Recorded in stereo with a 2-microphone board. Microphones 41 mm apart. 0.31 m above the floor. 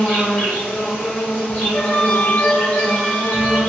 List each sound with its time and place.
0.0 s an insect: 30° left (ahead or behind), 1.5 m
1.7 s a flute: 35° left (ahead or behind), 0.7 m